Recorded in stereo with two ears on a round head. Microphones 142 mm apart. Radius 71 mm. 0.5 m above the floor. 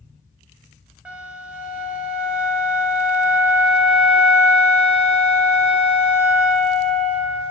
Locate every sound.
1.1 s a flute: 10° right (ahead or behind), 0.7 m